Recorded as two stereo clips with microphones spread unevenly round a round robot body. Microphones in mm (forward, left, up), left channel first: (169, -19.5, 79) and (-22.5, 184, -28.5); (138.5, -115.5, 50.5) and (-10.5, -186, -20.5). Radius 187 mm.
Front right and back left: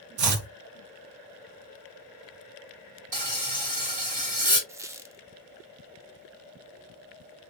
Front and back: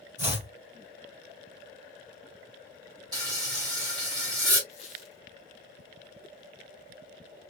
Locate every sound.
0.2 s chopping: 130° left, 1.1 m
3.1 s frying: 165° left, 2 m
4.7 s a squeak: 95° left, 0.6 m